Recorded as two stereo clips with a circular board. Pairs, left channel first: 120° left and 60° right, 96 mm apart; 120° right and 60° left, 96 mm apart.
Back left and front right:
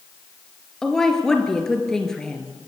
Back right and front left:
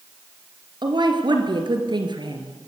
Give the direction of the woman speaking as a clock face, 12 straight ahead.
11 o'clock.